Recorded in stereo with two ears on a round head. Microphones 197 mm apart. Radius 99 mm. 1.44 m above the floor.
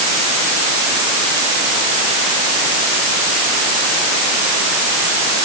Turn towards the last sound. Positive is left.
No sound to turn to.